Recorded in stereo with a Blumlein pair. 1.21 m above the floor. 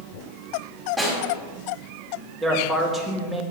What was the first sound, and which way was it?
A snare drum, 10° right.